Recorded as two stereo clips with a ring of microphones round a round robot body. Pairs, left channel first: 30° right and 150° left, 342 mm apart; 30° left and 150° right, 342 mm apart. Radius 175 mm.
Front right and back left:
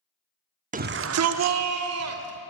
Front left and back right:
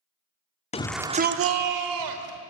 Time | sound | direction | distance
0.7 | a shout | 90° left | 0.9 m